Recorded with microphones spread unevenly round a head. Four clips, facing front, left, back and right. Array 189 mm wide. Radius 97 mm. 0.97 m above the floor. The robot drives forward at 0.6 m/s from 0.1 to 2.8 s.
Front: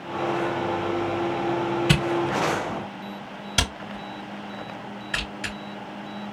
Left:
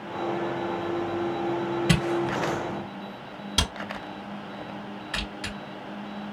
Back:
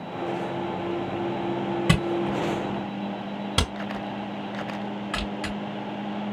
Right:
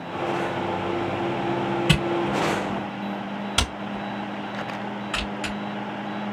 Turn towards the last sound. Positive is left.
turn(degrees=-170)